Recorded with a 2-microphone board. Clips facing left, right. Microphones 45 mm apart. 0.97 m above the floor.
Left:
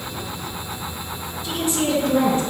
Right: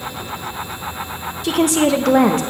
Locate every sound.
1.4 s a woman speaking: 70° right (ahead or behind), 0.9 m